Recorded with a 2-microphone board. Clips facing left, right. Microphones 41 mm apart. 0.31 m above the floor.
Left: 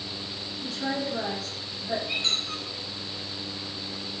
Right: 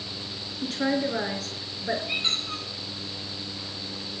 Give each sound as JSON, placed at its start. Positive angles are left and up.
{"t": 0.6, "sound": "a woman speaking", "side_deg": -55, "distance_m": 4.5}
{"t": 2.1, "sound": "a squeak", "side_deg": -15, "distance_m": 9.0}